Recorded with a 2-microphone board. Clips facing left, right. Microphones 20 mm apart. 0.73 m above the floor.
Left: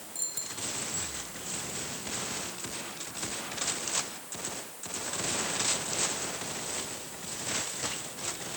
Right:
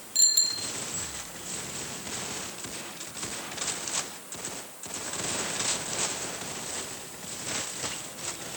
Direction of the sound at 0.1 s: 90° right.